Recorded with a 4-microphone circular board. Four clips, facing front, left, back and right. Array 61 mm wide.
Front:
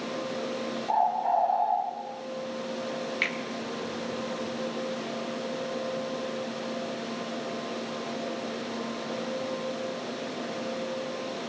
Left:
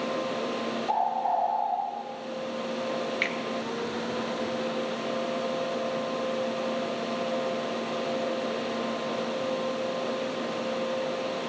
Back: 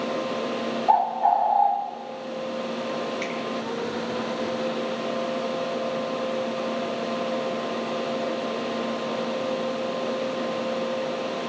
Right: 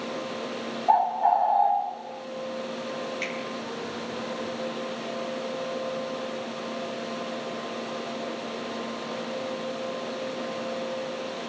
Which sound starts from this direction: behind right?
A bird, at 0.9 s.